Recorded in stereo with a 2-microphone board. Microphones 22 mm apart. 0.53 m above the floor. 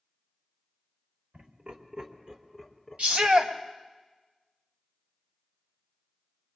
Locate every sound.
1.3 s laughter: 65° right (ahead or behind), 1.9 m; by 3.4 s 25° left (ahead or behind), 1.6 m
3.0 s a shout: 65° right (ahead or behind), 2 m